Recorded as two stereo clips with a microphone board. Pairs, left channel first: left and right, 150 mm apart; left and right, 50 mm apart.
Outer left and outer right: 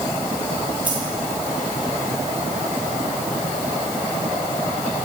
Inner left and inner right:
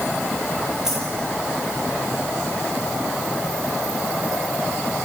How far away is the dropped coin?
About 10 m.